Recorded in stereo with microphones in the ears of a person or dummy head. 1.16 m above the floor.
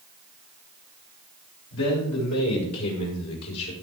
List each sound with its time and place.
1.7 s a man speaking: 75° left (ahead or behind), 6 m